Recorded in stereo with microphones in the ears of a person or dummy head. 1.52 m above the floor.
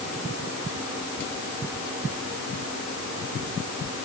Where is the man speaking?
No man speaking in this recording.